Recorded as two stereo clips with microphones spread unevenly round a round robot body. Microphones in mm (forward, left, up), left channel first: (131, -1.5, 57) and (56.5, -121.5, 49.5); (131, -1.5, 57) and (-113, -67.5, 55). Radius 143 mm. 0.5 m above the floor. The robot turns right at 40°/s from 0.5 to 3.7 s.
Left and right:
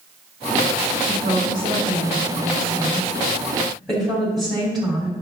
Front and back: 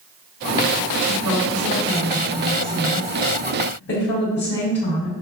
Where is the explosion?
No explosion in this recording.